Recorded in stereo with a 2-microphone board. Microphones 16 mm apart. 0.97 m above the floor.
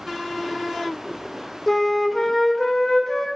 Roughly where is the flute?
Left.